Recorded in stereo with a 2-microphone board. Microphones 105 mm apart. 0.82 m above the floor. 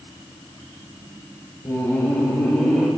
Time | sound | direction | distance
1.6 | laughter | 30° left (ahead or behind) | 1.5 m